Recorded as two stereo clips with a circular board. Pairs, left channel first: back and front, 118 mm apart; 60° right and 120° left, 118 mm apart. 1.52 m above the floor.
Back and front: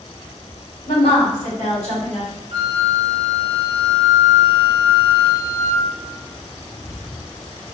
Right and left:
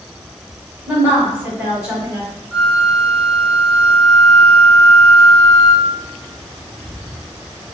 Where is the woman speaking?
165° right, 1.9 m.